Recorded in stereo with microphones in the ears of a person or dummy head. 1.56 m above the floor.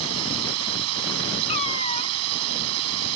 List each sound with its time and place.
0.0 s a drone: 85° right
1.5 s a cat meowing: 35° left (ahead or behind)